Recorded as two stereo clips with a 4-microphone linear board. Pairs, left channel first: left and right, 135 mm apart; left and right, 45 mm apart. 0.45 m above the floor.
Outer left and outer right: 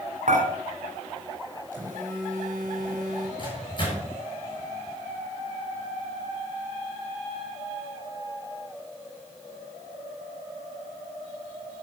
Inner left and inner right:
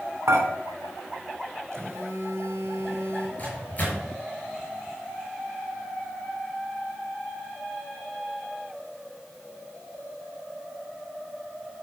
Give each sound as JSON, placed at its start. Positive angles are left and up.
{"t": 0.3, "sound": "dishes clattering", "side_deg": -70, "distance_m": 3.0}
{"t": 1.7, "sound": "a phone buzzing", "side_deg": -70, "distance_m": 3.5}
{"t": 3.4, "sound": "a microwave", "side_deg": 35, "distance_m": 5.5}